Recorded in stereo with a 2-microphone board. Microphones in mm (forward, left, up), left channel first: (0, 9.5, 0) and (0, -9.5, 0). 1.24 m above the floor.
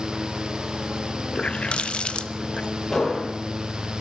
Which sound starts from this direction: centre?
An explosion, at 2.9 s.